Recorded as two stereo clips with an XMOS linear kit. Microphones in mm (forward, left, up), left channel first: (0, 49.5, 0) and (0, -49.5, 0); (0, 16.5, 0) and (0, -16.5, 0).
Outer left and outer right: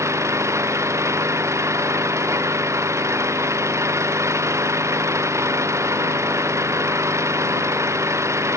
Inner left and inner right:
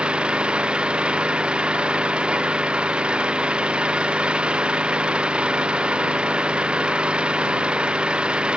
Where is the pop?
I don't hear a pop.